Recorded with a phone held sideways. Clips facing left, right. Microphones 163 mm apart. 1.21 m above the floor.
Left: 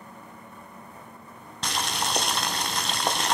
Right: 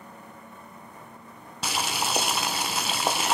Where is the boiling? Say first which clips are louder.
Right 1 dB; 5° right (ahead or behind), 1.0 m.